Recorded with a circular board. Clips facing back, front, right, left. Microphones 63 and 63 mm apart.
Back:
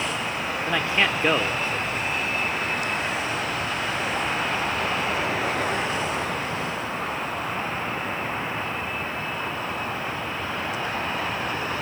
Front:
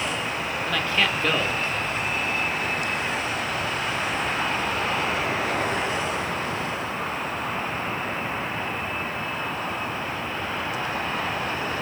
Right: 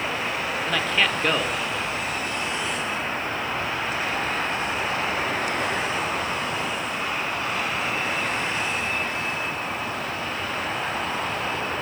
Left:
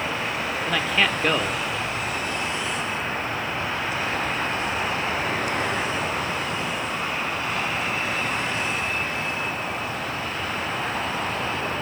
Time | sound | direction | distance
0.7 | a man speaking | 170° left | 1.4 m